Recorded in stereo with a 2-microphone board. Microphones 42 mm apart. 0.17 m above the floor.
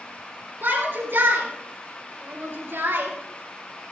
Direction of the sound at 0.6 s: 60° right (ahead or behind).